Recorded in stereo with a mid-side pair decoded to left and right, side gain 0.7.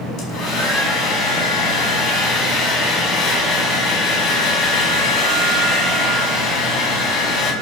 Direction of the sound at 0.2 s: 45° left.